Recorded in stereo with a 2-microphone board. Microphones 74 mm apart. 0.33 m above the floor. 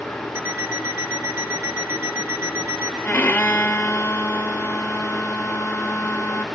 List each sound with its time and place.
0.3 s an alarm clock: 35° right (ahead or behind), 8 m
3.0 s a violin: 30° left (ahead or behind), 1.1 m